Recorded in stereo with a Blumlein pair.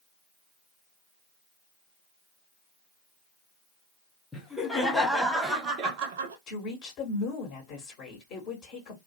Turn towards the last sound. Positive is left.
turn(degrees=35)